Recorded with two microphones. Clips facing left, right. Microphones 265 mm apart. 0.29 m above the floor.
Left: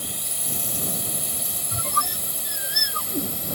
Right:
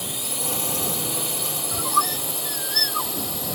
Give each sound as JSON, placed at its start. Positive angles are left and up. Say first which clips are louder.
{"t": 0.0, "sound": "a drone", "louder": "right 6 dB", "side_deg": -80}
{"t": 1.7, "sound": "a squeak", "louder": "right 2 dB", "side_deg": 25}